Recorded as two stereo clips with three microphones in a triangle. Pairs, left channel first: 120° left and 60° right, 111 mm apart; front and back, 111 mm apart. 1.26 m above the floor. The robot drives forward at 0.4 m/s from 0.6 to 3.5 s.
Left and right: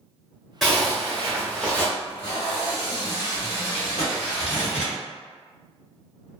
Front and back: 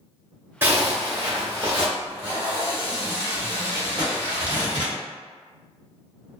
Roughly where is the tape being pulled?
Behind left.